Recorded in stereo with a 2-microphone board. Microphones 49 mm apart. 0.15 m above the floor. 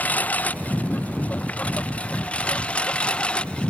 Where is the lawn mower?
35° left (ahead or behind); by 3.7 s 20° left (ahead or behind).